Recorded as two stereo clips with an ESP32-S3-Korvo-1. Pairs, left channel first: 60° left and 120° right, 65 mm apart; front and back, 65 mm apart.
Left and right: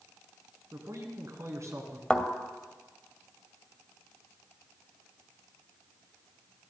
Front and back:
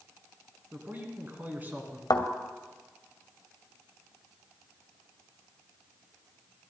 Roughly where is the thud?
Ahead.